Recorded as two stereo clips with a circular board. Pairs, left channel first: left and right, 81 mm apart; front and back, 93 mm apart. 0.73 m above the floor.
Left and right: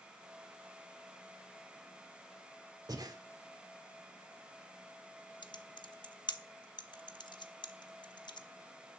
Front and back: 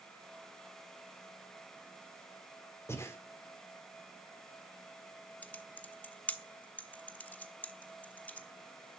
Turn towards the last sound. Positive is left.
turn(degrees=75)